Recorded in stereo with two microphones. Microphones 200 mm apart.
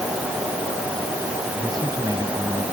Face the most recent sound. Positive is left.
turn(degrees=-20)  # may be behind; listen again after turning